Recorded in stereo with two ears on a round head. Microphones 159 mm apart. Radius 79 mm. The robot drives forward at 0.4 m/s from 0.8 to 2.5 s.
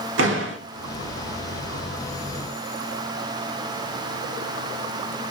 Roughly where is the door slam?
Right.